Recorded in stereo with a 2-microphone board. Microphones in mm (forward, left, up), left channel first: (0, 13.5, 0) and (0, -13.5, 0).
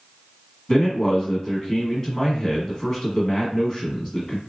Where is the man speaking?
20° left (ahead or behind), 1.2 m.